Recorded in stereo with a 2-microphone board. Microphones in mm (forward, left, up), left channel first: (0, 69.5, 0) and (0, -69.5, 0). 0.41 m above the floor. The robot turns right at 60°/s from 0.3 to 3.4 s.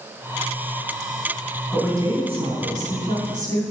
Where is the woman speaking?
170° right, 3.5 m; by 3.6 s 70° right, 3.5 m.